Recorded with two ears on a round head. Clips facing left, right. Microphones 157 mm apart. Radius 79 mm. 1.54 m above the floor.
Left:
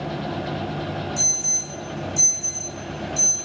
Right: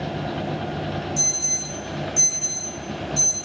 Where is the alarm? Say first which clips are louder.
Right 1 dB; 10° right (ahead or behind), 4 m.